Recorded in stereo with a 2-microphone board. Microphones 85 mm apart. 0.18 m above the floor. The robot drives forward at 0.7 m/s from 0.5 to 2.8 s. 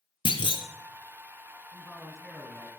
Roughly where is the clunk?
Left.